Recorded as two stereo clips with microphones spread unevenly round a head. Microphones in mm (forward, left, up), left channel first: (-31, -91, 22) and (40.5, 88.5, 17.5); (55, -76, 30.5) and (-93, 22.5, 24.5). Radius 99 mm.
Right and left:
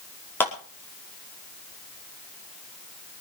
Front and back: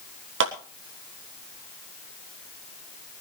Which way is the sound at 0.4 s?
170° left.